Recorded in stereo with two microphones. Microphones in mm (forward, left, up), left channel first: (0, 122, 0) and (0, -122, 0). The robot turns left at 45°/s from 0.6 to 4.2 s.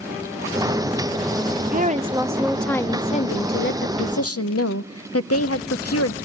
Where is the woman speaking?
135° right, 0.8 m; by 6.2 s 105° left, 0.8 m.